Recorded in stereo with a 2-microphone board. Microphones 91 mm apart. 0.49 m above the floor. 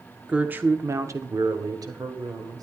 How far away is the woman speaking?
About 0.7 m.